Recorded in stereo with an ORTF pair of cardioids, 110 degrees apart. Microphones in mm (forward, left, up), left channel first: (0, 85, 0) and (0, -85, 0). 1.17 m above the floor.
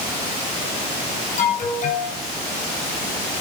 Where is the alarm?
50° left, 7.5 m.